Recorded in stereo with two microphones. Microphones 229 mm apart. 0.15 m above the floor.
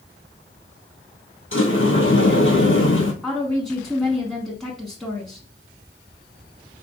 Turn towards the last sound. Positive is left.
turn(degrees=0)  # may be behind; listen again after turning